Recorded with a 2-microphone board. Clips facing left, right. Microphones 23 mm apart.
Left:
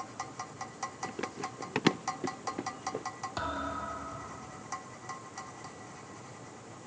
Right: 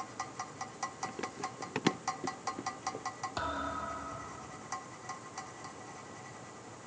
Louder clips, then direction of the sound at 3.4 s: Left 1 dB; 5° left (ahead or behind).